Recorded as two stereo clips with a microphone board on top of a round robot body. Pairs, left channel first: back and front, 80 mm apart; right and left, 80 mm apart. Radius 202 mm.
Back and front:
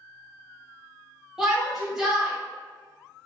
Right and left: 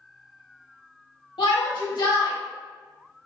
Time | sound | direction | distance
1.4 | a shout | 85° right | 1.1 m